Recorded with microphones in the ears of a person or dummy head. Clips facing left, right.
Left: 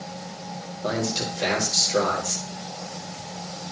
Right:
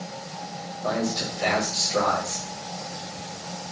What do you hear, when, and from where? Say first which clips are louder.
0.8 s a man speaking: even; 40° left (ahead or behind), 5.5 m